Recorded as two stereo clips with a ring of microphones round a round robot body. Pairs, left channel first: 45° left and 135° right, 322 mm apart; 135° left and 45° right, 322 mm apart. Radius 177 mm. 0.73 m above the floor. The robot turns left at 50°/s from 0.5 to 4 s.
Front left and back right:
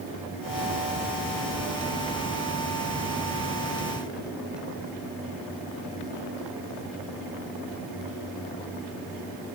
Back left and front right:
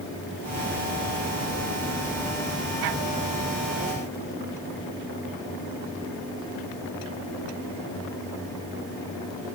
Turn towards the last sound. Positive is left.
No sound to turn to.